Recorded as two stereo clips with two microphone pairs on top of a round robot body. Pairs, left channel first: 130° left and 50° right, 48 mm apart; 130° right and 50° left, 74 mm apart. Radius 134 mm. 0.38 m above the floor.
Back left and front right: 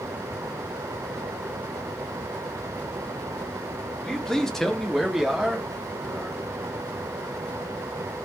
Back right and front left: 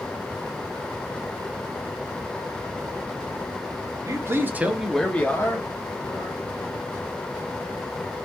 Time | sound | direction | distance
4.0 | a man speaking | 50° left | 1.1 m